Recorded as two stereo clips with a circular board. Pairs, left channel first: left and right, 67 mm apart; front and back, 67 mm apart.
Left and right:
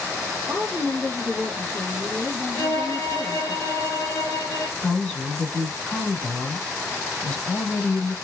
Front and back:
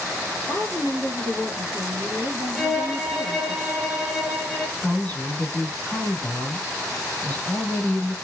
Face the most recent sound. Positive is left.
turn(degrees=25)